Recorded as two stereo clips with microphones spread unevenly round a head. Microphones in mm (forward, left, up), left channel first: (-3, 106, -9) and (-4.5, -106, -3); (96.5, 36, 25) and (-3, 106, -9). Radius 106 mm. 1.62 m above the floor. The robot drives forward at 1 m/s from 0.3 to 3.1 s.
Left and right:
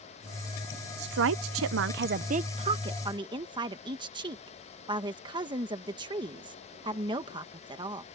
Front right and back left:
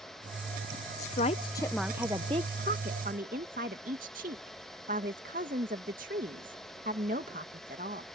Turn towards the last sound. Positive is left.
turn(degrees=-160)